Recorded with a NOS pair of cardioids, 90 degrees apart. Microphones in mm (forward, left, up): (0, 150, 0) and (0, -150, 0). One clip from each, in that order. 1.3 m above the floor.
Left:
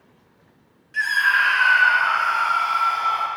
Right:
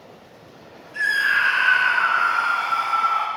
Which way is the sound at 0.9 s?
30° left.